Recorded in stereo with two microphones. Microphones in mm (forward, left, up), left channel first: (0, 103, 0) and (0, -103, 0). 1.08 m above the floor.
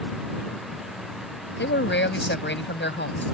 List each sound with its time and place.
1.6 s a man speaking: 70° left (ahead or behind)